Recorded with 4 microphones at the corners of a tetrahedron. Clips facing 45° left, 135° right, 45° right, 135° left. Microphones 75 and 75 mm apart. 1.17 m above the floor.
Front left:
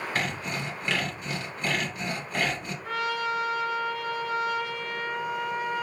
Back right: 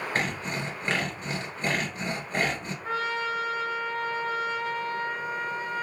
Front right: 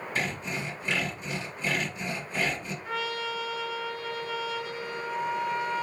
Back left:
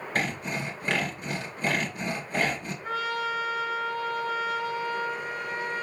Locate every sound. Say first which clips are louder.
0.1 s sawing: back right 1 dB, back left 3 dB; 170° left, 2.5 m
2.8 s a trumpet: even, back left 4 dB; 170° left, 4 m